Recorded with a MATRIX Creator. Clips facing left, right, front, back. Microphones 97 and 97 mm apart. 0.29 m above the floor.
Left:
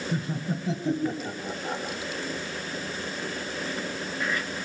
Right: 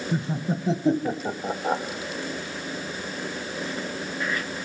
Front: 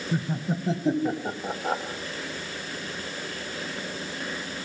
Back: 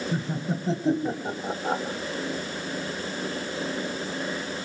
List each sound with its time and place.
0.1 s laughter: 80° right, 1.6 m; by 1.8 s 85° right, 2.5 m